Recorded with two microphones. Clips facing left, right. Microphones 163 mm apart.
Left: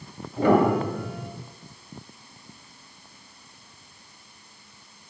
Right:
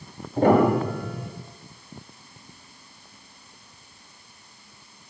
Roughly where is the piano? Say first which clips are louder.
Right 1 dB; right.